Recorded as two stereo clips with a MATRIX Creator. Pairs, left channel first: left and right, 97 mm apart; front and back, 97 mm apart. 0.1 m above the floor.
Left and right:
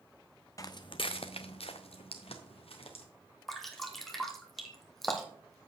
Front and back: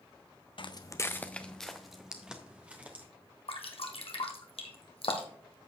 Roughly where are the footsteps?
Ahead left.